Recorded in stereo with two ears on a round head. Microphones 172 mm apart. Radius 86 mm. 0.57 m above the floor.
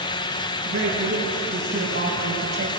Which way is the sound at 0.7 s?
75° right (ahead or behind).